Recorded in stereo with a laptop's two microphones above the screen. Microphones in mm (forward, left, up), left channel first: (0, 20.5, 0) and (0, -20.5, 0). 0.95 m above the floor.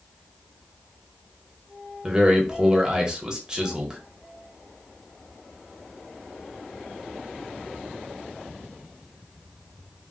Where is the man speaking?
20° right (ahead or behind), 0.9 m.